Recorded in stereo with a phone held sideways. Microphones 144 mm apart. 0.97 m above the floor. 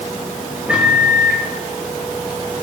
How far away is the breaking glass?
I don't hear breaking glass.